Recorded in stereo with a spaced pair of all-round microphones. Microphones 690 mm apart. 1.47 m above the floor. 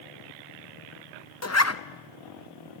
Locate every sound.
1.4 s a zipper: 25° left (ahead or behind), 0.7 m